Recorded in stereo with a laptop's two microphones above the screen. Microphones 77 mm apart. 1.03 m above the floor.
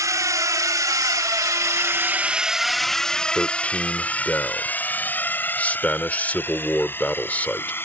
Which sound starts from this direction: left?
A man speaking, at 3.4 s.